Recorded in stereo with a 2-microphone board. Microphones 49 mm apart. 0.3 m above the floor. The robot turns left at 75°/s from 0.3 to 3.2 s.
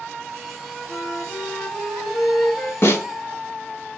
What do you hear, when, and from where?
0.9 s a flute: 125° left, 0.7 m; by 2.7 s 15° right, 0.7 m
2.8 s a snare drum: 60° left (ahead or behind), 0.6 m; by 3.0 s 75° left (ahead or behind), 0.6 m